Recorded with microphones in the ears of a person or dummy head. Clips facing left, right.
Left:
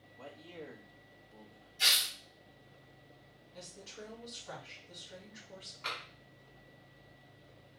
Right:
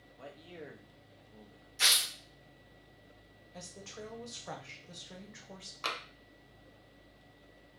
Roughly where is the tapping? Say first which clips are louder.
Right 5 dB; right.